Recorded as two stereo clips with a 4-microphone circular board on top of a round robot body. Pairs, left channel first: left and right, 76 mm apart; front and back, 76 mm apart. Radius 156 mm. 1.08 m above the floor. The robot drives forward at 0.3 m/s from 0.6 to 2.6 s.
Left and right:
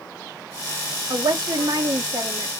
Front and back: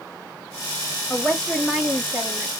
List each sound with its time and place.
1.1 s a woman speaking: 85° right, 0.8 m; by 2.5 s 120° right, 0.8 m